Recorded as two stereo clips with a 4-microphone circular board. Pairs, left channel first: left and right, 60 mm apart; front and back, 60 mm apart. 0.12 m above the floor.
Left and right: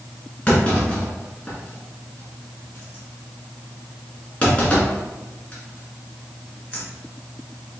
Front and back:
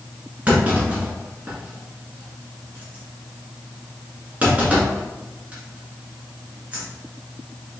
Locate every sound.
0.5 s a clunk: 140° left, 1.4 m